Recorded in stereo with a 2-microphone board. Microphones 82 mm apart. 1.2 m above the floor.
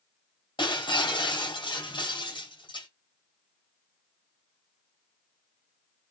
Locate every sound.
0.6 s breaking glass: 75° left (ahead or behind), 3 m